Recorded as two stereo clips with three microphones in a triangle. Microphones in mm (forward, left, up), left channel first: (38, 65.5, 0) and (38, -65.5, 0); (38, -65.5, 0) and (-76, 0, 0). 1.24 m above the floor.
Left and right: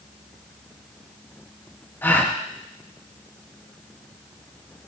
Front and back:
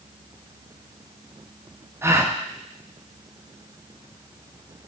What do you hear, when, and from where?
2.0 s a gasp: 135° left, 0.6 m